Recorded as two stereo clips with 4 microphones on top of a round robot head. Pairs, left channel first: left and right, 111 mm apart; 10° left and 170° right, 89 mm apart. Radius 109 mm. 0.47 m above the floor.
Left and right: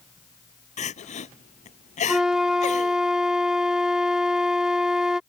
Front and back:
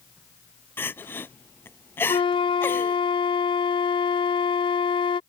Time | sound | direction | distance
0.8 | crying | 80° left | ?
2.1 | a flute | 5° right | ?